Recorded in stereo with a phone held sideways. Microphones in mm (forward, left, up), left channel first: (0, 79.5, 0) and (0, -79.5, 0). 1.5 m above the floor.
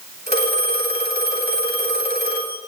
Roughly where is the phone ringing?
Right.